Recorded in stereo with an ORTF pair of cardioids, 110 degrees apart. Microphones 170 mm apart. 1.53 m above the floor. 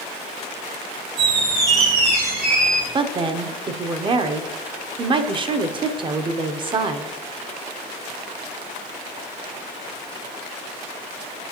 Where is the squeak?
65° right, 2.0 m.